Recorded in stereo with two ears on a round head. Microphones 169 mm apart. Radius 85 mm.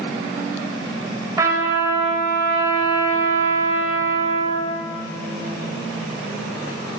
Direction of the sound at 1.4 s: 15° right (ahead or behind).